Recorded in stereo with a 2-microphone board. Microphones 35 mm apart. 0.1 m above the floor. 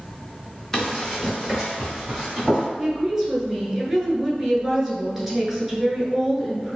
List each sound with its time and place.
0.7 s running footsteps: 10° left (ahead or behind), 1.4 m; by 2.7 s centre (ahead or behind), 2.5 m
2.8 s a woman speaking: 10° right (ahead or behind), 1.1 m